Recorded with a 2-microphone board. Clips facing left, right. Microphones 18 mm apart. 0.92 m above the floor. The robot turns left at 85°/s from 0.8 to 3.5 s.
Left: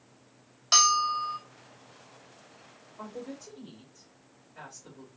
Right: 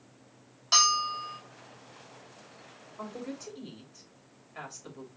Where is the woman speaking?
15° right (ahead or behind), 2.5 m; by 5.1 s 55° right (ahead or behind), 2.5 m.